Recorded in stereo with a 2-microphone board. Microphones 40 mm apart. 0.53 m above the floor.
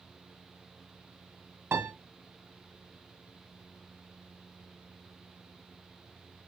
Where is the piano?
85° right, 1.3 m.